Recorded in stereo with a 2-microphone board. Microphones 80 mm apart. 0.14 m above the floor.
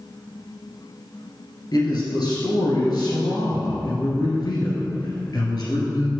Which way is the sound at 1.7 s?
55° left (ahead or behind).